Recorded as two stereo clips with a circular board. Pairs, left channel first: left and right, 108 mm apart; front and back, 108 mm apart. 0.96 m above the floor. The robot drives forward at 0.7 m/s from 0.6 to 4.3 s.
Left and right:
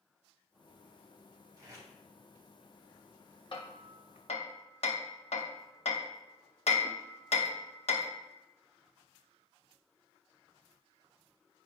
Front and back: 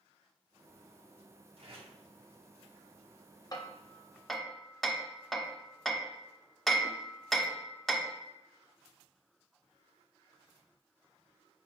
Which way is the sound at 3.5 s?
55° left.